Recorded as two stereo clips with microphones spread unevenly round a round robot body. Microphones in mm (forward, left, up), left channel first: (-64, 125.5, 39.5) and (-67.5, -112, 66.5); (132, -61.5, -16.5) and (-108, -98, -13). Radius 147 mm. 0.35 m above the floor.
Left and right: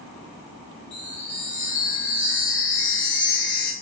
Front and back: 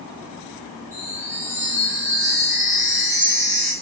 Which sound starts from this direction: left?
A chime, at 0.9 s.